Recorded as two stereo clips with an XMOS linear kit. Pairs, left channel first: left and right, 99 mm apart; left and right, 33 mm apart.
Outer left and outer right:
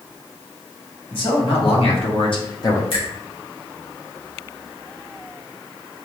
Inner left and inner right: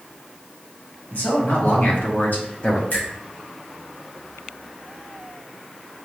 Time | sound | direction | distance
1.1 | a man speaking | 60° left (ahead or behind) | 1.6 m
2.9 | a finger snap | 65° left (ahead or behind) | 1.6 m